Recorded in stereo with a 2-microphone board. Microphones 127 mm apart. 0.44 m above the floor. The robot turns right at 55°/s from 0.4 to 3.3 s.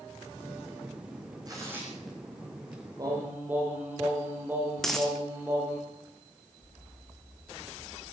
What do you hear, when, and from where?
1.5 s tearing paper: 30° right (ahead or behind), 8 m; by 2.8 s 45° left (ahead or behind), 8 m
3.0 s singing: 35° right (ahead or behind), 8.5 m; by 5.8 s 15° right (ahead or behind), 8.5 m
4.8 s a dropped coin: 5° left (ahead or behind), 3 m